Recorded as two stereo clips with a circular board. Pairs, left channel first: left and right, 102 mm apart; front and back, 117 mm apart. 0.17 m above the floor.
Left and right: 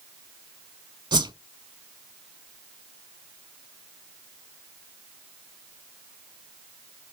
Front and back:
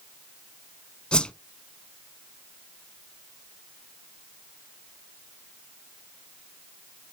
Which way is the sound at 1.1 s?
80° right.